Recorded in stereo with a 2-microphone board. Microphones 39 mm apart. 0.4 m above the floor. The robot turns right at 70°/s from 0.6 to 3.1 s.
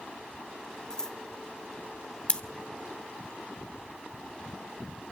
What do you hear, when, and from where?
0.9 s scissors: 20° left (ahead or behind), 1.1 m; by 1.2 s 15° left (ahead or behind), 1.1 m
2.3 s scissors: 30° left (ahead or behind), 0.6 m; by 2.4 s 20° left (ahead or behind), 0.6 m